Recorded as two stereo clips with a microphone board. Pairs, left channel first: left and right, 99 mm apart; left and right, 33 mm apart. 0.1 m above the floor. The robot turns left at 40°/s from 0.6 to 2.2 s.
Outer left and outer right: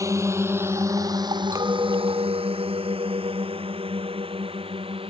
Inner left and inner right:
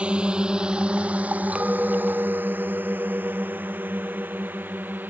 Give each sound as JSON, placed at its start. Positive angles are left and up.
{"t": 0.0, "sound": "a drone", "side_deg": -30}
{"t": 1.5, "sound": "a clink", "side_deg": -35}